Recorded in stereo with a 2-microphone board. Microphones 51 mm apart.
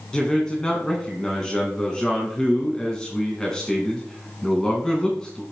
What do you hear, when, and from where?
0.1 s a man speaking: 15° left (ahead or behind), 1.4 m